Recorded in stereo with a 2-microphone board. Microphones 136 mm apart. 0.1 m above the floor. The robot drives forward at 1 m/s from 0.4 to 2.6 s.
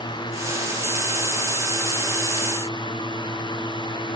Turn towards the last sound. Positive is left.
No sound to turn to.